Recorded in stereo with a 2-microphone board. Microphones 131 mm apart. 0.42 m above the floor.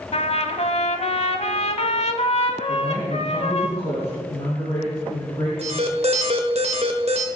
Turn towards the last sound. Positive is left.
turn(degrees=-55)  # may be behind; listen again after turning